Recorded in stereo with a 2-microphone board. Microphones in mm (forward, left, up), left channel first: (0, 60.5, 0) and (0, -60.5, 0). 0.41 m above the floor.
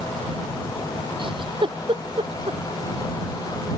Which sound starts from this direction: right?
A giggle, at 1.2 s.